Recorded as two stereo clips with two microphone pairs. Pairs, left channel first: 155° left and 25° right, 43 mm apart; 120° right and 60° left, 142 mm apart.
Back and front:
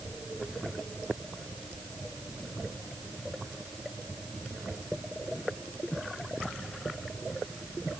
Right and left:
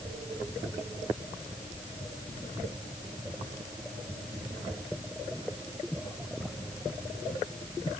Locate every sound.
Only background noise.